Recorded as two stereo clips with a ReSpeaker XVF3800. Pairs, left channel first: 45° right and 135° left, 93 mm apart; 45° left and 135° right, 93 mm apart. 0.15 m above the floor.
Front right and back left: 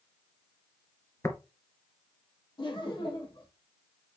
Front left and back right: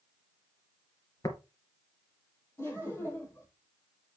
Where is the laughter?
15° right, 5 m.